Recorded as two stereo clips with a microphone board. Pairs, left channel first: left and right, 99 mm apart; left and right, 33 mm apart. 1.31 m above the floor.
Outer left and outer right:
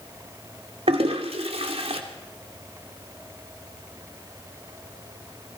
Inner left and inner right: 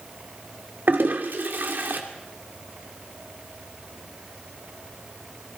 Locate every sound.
0.9 s a toilet flushing: 80° right, 2.5 m